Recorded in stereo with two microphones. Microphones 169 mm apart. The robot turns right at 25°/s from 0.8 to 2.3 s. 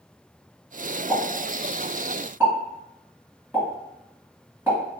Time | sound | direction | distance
1.1 | a pop | 30° right (ahead or behind) | 1.7 m